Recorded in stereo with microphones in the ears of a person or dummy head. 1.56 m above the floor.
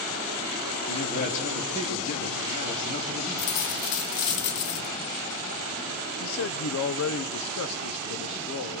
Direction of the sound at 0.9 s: 40° left (ahead or behind).